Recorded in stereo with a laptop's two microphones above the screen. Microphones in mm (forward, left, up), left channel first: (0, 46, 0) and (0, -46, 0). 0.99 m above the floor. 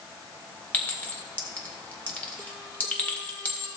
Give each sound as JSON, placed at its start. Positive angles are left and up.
{"t": 0.7, "sound": "a clink", "side_deg": 20, "distance_m": 2.0}